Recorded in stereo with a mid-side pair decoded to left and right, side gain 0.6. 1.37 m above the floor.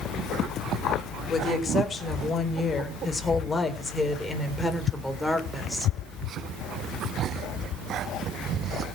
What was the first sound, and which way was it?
A woman speaking, 30° left.